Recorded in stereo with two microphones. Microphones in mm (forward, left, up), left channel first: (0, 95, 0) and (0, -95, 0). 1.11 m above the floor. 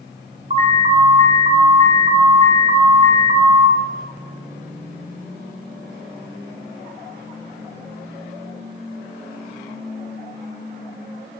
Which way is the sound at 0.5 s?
35° right (ahead or behind).